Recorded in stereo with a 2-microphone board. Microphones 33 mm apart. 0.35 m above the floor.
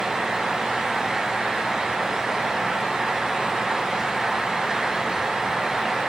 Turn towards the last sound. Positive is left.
No sound to turn to.